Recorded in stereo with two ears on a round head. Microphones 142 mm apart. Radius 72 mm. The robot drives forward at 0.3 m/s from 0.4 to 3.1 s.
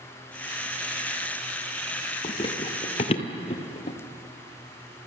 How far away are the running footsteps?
About 1.4 m.